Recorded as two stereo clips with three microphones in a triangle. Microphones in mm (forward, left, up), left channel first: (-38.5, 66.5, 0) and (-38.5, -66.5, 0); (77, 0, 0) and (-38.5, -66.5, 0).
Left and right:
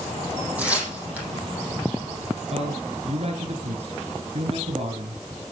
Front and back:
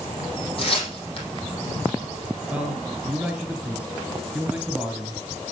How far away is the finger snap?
I don't hear a finger snap.